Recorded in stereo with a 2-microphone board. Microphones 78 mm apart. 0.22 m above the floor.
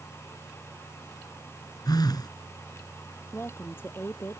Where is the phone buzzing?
60° left (ahead or behind).